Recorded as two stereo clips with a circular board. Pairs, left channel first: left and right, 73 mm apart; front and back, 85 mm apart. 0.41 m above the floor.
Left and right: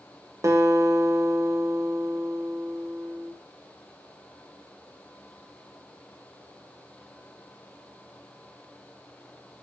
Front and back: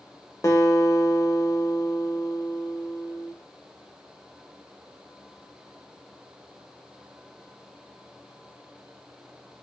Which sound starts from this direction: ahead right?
A guitar, at 0.4 s.